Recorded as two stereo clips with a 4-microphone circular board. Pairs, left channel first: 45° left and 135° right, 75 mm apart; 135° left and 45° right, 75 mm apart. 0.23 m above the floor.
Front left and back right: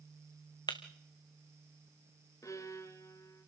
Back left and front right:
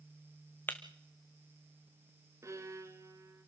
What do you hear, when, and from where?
0.7 s breaking glass: 70° left, 1.3 m
2.4 s a violin: straight ahead, 1.3 m